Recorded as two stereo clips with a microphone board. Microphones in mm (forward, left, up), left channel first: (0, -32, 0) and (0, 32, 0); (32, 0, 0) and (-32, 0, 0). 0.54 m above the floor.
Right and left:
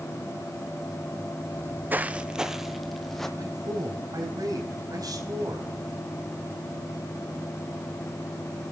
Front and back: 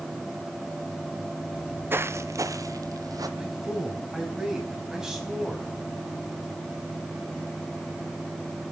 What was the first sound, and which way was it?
Footsteps, 105° left.